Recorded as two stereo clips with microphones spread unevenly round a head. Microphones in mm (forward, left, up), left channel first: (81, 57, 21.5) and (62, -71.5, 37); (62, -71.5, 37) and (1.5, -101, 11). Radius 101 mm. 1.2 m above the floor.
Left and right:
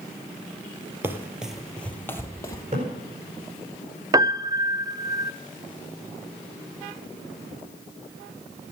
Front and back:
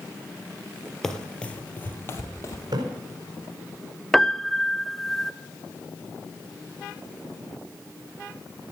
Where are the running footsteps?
40° right, 1.8 m; by 2.6 s 20° left, 2.5 m.